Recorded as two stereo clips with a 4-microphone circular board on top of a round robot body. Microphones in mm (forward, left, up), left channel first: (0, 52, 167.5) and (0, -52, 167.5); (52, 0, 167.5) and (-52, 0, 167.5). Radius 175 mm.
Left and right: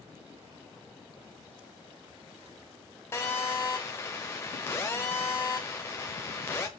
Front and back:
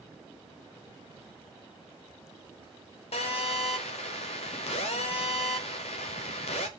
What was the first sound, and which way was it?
A phone buzzing, 25° left.